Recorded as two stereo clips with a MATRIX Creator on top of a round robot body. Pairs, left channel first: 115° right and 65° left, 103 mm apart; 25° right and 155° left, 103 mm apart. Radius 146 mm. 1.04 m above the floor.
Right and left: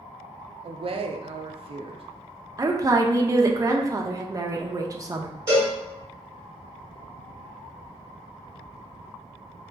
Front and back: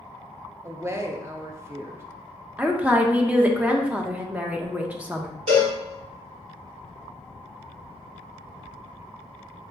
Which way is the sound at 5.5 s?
130° left.